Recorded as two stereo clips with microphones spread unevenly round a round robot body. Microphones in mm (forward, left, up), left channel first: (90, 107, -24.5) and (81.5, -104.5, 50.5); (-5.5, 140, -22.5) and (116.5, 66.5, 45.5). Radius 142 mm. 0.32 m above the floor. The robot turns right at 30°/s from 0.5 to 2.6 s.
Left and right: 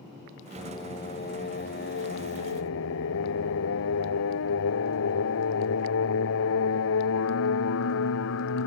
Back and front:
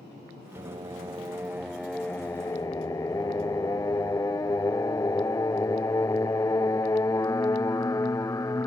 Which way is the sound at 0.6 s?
20° left.